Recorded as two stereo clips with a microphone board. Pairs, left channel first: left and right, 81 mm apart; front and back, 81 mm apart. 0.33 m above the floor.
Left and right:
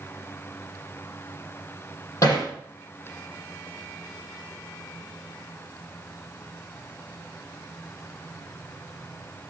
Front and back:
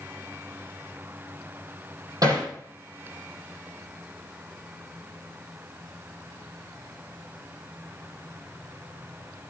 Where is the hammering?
140° left, 7 m.